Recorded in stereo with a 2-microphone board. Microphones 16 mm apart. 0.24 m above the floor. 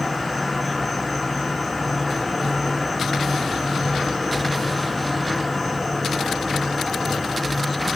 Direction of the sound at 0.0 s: 10° left (ahead or behind).